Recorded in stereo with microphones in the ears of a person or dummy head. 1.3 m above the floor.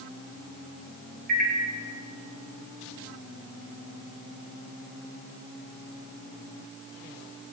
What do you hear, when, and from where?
1.3 s a microwave: 50° right (ahead or behind), 0.8 m